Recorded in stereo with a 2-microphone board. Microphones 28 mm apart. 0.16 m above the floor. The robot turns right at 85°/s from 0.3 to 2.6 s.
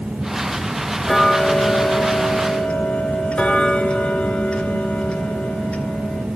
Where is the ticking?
5° left, 0.5 m; by 6.3 s 135° left, 0.5 m.